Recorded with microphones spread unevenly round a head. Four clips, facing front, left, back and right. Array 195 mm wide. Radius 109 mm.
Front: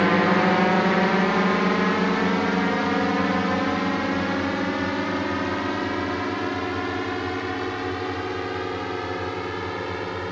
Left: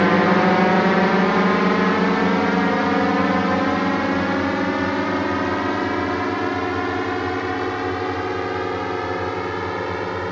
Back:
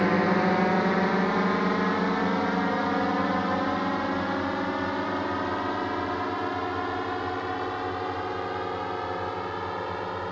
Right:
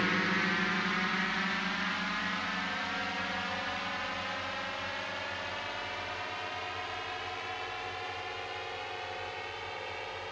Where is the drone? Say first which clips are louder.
Left 16 dB, front 4 dB; 75° left; by 10.3 s 70° left.